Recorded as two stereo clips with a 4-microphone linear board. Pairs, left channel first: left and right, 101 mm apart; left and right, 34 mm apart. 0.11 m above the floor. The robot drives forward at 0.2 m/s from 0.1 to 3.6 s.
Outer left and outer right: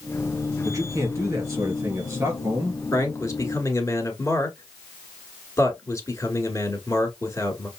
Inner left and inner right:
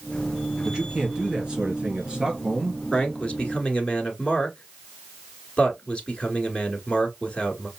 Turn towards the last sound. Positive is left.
turn(degrees=30)  # may be behind; listen again after turning